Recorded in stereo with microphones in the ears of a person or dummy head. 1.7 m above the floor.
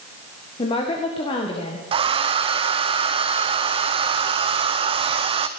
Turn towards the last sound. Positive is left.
turn(degrees=-25)  # may be behind; listen again after turning